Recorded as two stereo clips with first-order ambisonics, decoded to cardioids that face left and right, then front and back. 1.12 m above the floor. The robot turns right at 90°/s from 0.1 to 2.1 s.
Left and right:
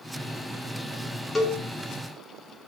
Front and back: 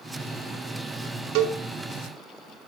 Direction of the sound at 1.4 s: 170° left.